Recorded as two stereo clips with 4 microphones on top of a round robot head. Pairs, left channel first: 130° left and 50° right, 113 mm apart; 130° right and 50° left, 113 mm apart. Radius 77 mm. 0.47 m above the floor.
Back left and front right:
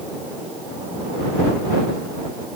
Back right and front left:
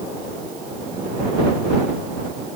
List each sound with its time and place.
Only background noise.